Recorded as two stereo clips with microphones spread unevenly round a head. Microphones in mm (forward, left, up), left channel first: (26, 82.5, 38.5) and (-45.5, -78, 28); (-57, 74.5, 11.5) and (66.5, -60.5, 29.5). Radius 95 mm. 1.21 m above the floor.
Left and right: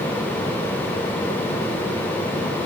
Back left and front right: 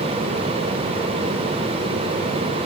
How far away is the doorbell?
I don't hear a doorbell.